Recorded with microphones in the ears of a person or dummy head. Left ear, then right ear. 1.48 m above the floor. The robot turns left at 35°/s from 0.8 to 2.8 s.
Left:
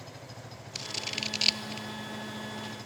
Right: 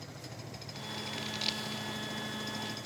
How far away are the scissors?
About 0.6 m.